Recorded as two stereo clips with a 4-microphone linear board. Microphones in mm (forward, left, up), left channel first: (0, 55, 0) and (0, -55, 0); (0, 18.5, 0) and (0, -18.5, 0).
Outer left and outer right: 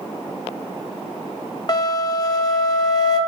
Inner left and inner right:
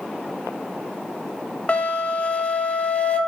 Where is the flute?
40° left (ahead or behind), 0.8 m.